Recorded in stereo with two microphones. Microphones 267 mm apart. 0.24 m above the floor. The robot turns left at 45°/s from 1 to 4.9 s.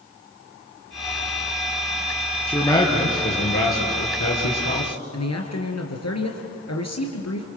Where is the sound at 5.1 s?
75° left (ahead or behind), 3.5 m.